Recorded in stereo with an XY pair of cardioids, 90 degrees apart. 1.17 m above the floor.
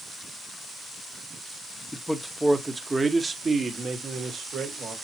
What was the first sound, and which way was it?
A man speaking, 5° left.